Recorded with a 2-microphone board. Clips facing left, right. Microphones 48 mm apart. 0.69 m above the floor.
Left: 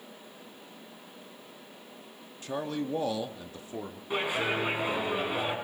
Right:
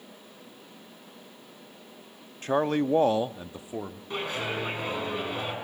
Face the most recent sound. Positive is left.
turn(degrees=10)  # may be behind; listen again after turning